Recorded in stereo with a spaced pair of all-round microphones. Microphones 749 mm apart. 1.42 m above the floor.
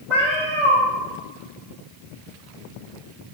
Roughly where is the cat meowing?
Right.